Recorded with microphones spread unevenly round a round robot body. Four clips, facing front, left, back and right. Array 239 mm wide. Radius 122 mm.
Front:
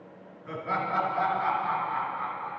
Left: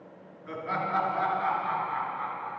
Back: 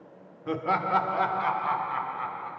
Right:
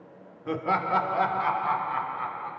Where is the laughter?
135° right, 2.5 m.